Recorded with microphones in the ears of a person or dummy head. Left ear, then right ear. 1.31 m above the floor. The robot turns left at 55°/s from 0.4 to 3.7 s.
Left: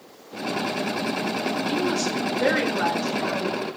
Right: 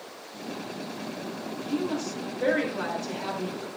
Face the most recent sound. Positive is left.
turn(degrees=-40)